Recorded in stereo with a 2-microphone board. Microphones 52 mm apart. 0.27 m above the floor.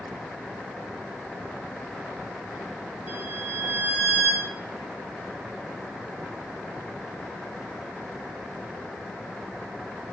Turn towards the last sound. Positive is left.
turn(degrees=-30)  # may be behind; listen again after turning